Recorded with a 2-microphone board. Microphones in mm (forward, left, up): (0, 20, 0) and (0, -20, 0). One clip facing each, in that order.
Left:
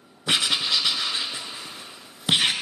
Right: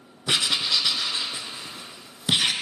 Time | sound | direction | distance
0.3 | writing | 15° left (ahead or behind) | 0.9 m